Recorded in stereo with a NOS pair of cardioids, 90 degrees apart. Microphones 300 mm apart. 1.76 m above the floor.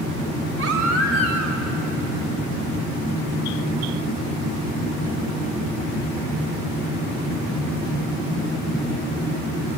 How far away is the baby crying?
About 3.5 m.